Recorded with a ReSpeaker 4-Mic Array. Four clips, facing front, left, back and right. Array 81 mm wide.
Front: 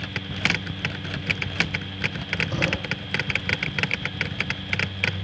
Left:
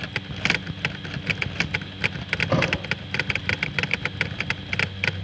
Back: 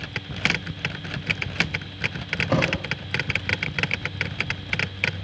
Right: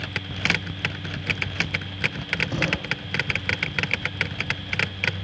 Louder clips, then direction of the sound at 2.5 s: Left 6 dB, back 6 dB; 145° left.